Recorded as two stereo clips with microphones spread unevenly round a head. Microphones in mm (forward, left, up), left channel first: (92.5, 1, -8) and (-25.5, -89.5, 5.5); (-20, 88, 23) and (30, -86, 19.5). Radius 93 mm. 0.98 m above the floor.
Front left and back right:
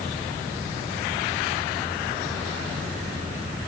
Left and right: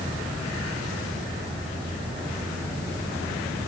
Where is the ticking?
I don't hear ticking.